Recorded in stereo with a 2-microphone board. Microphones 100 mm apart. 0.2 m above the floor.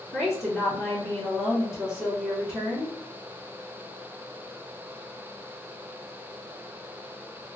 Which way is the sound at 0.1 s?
5° right (ahead or behind).